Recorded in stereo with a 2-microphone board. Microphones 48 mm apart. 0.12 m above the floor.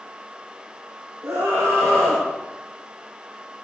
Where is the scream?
70° right (ahead or behind), 5 m.